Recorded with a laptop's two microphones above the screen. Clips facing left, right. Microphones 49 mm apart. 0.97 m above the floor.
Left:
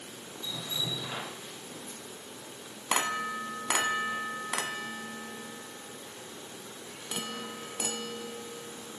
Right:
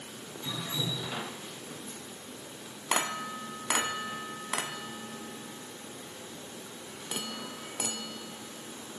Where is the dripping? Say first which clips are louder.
Right 1 dB; 80° right, 7 m.